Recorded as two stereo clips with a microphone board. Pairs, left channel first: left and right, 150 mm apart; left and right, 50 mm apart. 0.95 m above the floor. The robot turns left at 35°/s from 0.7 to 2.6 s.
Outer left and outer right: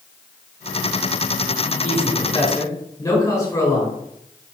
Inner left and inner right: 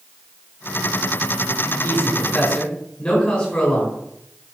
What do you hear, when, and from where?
1.8 s a man speaking: 50° left (ahead or behind), 4.5 m; by 4.0 s 25° left (ahead or behind), 4.5 m